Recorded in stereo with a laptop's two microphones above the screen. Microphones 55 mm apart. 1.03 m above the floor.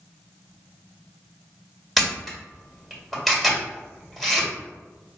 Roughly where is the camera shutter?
Centre.